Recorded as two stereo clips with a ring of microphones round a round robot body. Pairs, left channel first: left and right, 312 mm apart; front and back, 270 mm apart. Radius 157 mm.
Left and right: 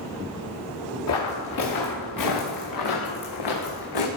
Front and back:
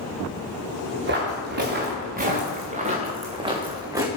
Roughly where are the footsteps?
Behind left.